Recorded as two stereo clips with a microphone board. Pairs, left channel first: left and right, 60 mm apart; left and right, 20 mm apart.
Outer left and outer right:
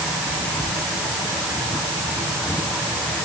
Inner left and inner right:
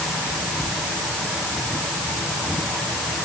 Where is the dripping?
No dripping in this recording.